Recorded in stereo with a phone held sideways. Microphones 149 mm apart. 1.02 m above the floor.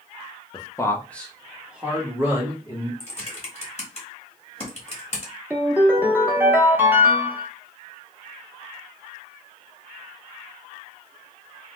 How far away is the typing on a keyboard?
About 1.1 m.